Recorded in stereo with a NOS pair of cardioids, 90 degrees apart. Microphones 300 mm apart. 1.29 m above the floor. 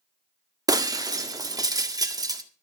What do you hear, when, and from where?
0.7 s breaking glass: 10° right, 1.6 m